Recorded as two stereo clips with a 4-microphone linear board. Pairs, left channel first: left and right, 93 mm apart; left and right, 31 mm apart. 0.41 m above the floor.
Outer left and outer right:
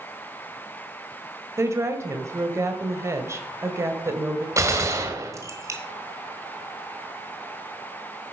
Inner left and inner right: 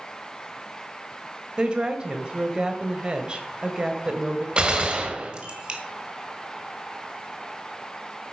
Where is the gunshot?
30° right (ahead or behind), 1.6 m.